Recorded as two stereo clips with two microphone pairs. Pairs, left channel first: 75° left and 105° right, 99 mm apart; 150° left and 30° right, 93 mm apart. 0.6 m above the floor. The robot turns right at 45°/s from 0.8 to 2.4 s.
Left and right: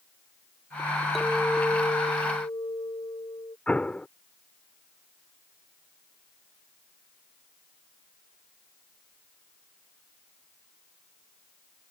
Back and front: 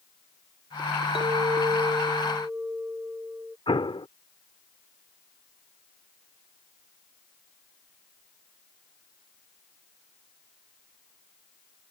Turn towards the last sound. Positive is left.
turn(degrees=155)